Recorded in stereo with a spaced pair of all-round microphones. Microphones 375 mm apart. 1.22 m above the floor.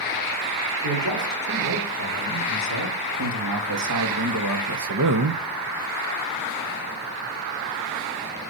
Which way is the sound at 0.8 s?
60° right (ahead or behind).